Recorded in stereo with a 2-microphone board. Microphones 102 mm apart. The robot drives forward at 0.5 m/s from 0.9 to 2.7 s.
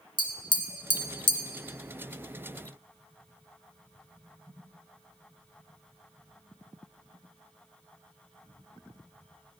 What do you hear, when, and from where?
0.2 s tapping: 45° left (ahead or behind), 0.7 m; by 1.4 s 50° left (ahead or behind), 0.6 m